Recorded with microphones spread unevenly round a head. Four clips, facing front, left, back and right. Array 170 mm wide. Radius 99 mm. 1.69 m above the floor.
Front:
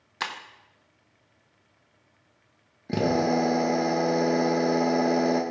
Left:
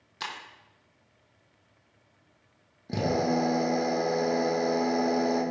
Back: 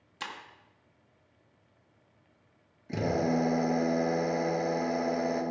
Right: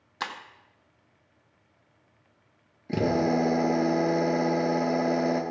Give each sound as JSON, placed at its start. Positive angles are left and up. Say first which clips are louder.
{"t": 0.2, "sound": "breaking glass", "louder": "right 4 dB, front 7 dB", "azimuth_deg": -105, "distance_m": 0.8}
{"t": 2.9, "sound": "a drill", "louder": "right 2 dB, front 5 dB", "azimuth_deg": -10, "distance_m": 1.9}